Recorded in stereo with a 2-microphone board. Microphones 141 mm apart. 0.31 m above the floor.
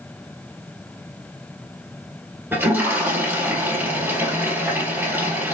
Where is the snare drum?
No snare drum in this recording.